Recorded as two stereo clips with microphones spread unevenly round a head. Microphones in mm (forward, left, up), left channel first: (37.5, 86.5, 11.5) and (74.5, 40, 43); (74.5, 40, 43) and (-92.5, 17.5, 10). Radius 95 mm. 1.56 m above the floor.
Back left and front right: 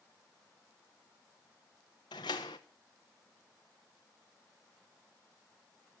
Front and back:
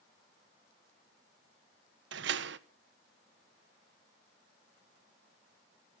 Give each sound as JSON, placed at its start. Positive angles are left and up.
{"t": 2.1, "sound": "a door slam", "azimuth_deg": -165, "distance_m": 0.6}